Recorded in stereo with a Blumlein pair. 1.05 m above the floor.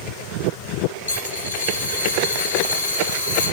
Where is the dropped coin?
65° left, 7.5 m.